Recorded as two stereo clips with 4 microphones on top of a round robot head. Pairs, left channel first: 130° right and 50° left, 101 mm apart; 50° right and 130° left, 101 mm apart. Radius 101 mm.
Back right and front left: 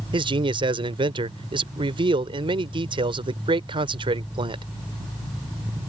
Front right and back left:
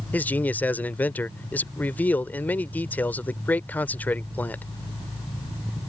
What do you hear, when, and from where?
0.1 s a man speaking: 25° left